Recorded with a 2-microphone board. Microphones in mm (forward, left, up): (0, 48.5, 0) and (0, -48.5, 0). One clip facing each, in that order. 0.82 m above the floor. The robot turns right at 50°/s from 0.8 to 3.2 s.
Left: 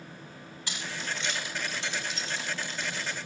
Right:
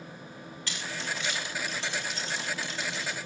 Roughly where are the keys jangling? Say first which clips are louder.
Even; centre.